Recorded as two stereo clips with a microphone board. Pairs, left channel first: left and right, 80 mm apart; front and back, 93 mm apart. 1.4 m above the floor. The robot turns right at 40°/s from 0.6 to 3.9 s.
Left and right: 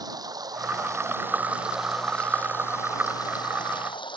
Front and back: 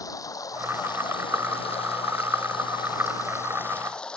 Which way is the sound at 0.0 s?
50° right.